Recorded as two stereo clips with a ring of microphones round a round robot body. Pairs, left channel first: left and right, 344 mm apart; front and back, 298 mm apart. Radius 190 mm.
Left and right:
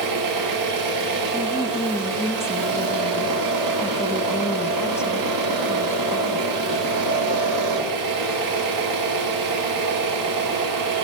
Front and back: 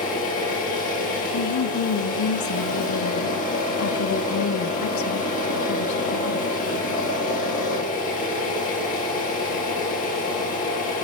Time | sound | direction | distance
0.0 | an engine running | 65° right | 1.8 m
1.3 | a woman speaking | 10° left | 0.7 m